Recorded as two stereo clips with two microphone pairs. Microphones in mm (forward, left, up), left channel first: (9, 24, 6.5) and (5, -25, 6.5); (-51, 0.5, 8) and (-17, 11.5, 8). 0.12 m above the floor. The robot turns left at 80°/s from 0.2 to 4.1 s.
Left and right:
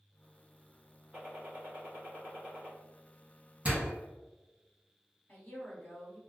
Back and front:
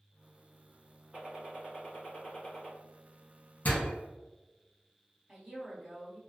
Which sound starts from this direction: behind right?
A door slam, at 3.6 s.